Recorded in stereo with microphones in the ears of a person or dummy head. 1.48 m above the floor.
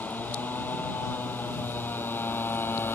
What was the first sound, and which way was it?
A motorcycle, 5° left (ahead or behind).